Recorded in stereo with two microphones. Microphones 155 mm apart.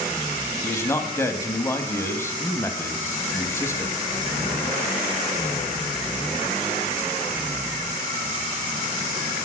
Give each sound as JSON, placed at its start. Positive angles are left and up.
{"t": 0.6, "sound": "a man speaking", "side_deg": 15, "distance_m": 1.0}